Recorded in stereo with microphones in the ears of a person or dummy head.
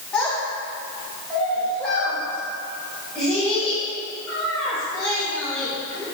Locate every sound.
0.1 s a child speaking: 5° left (ahead or behind), 1.3 m; by 6.0 s 10° left (ahead or behind), 6 m